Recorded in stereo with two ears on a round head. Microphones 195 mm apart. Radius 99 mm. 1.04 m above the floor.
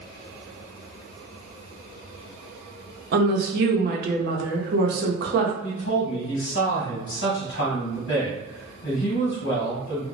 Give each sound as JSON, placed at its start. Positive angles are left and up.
{"t": 3.1, "sound": "a woman speaking", "side_deg": -50, "distance_m": 0.7}
{"t": 5.6, "sound": "a man speaking", "side_deg": 55, "distance_m": 1.3}